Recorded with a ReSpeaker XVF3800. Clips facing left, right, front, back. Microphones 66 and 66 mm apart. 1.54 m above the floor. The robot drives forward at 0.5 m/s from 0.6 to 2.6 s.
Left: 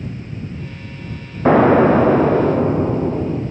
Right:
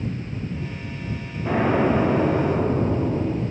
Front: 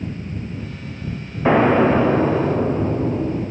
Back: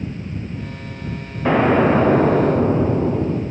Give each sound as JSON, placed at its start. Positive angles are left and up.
{"t": 1.4, "sound": "an explosion", "azimuth_deg": 80, "distance_m": 0.6}